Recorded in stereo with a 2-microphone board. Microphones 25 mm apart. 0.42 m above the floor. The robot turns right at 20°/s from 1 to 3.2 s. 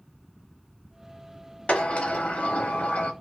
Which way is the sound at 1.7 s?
60° left (ahead or behind).